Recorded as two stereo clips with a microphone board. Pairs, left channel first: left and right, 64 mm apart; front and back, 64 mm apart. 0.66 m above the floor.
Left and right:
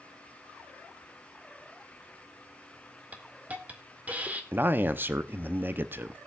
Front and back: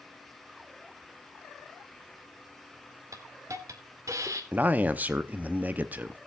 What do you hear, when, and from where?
3.1 s a hiss: 155° right, 2.0 m
4.5 s a man speaking: 130° right, 0.7 m